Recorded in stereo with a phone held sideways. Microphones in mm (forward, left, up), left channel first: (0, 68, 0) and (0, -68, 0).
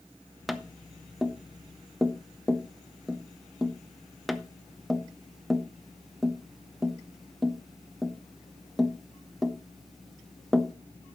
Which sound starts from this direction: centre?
Tapping, at 0.5 s.